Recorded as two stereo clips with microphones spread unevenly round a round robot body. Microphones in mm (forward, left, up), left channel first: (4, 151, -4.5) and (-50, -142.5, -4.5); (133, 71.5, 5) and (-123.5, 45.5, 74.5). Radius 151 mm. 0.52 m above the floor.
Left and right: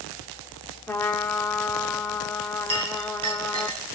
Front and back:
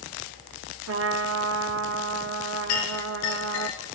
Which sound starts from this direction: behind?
A trumpet, at 0.9 s.